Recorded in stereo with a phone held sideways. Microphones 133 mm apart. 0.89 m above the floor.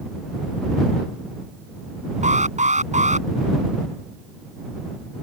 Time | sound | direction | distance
2.2 | an alarm | 65° right (ahead or behind) | ?